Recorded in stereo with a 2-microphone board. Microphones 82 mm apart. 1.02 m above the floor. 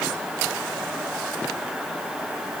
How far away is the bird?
I don't hear a bird.